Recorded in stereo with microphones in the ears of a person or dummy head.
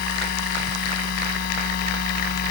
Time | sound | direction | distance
0.0 | a machine running | 55° left (ahead or behind) | ?